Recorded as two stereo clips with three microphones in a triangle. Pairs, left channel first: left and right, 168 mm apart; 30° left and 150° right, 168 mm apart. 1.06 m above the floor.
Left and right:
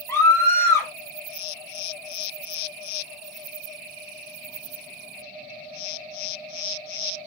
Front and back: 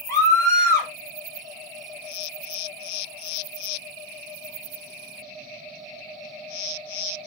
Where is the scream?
55° left, 0.6 m.